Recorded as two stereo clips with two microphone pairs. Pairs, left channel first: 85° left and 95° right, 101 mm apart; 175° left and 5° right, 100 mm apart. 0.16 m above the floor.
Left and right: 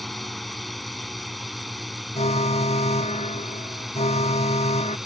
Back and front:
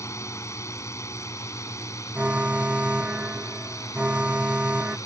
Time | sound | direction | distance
0.0 | a drone | 175° left | ?
2.1 | an alarm | 70° left | ?